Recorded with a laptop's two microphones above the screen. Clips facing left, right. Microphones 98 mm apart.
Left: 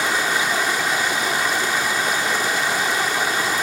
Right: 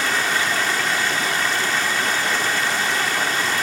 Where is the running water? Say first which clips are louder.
Left 1 dB; 15° left (ahead or behind), 1.5 m.